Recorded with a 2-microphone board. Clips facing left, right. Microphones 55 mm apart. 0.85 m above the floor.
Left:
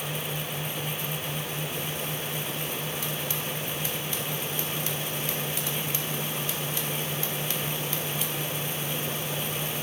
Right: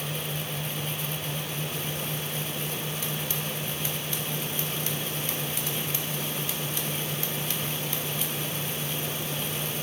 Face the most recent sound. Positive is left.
No sound to turn to.